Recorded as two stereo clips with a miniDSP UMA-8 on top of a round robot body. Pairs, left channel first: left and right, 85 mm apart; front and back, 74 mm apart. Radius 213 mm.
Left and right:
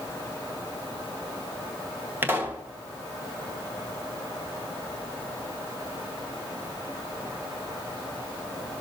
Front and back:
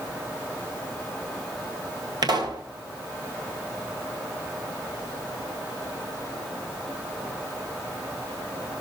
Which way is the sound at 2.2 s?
160° right.